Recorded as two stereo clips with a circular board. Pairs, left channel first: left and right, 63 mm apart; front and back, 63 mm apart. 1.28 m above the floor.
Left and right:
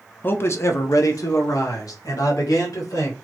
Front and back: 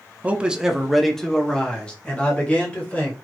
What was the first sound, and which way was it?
A man speaking, 125° left.